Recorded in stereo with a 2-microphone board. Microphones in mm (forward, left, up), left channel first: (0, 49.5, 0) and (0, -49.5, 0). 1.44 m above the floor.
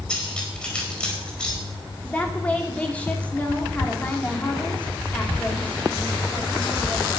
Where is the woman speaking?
15° left (ahead or behind), 3.5 m.